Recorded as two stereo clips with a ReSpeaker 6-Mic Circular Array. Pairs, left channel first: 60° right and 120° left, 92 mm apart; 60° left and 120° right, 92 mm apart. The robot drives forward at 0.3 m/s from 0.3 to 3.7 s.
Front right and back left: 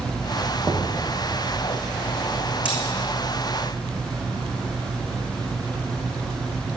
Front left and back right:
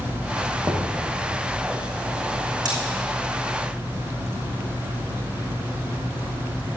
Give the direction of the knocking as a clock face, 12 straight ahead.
6 o'clock.